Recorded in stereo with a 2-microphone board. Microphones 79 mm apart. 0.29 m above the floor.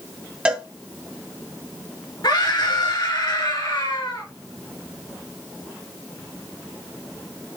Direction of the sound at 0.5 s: 15° right (ahead or behind).